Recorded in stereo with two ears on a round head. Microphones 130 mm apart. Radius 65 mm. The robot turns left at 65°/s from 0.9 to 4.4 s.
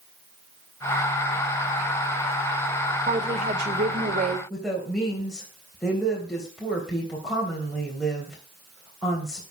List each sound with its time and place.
3.1 s a woman speaking: 35° right, 2.5 m; by 4.4 s 120° right, 2.5 m
4.5 s a woman speaking: centre (ahead or behind), 3 m